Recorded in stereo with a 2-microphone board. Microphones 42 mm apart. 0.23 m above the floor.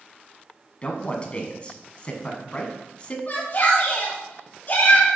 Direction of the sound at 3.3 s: 40° left (ahead or behind).